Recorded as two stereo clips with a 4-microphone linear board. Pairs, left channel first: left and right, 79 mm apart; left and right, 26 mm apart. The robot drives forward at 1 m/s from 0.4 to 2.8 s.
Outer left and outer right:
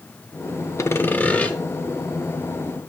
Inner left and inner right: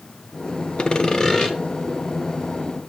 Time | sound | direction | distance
0.8 | sawing | 40° left (ahead or behind) | 0.5 m